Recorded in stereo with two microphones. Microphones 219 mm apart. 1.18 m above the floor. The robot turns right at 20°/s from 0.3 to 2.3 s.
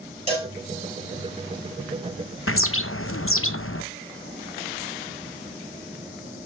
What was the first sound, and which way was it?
A cowbell, 25° right (ahead or behind).